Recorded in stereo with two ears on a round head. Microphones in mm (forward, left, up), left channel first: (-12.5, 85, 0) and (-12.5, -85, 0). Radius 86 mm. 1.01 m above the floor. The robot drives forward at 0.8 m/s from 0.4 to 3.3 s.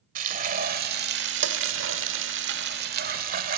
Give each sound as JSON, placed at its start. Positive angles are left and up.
{"t": 0.1, "sound": "frying", "side_deg": -45, "distance_m": 1.9}